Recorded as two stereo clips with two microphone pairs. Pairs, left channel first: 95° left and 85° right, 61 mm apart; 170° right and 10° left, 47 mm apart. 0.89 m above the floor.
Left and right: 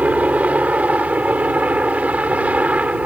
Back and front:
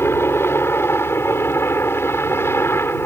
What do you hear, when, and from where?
0.0 s a helicopter: 150° right